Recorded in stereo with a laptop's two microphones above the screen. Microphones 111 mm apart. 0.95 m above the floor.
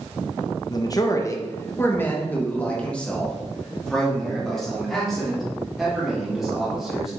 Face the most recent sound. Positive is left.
turn(degrees=0)  # may be behind; listen again after turning